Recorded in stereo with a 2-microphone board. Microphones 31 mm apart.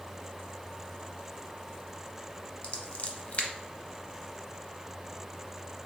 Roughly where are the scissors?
Left.